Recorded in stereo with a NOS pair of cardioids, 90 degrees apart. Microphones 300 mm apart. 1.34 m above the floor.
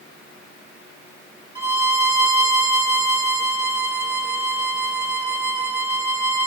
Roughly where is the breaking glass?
No breaking glass in this recording.